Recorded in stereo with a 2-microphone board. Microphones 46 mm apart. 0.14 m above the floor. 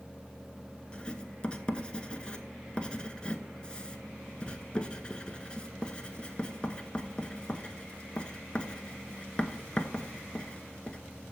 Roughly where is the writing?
Left.